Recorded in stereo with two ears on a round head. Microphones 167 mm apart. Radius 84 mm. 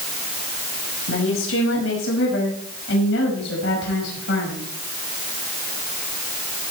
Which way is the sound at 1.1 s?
75° left (ahead or behind).